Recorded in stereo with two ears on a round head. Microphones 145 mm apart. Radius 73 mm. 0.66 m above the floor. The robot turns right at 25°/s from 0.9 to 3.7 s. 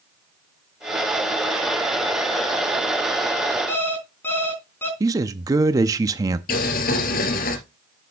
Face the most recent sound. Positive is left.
turn(degrees=60)  # may be behind; listen again after turning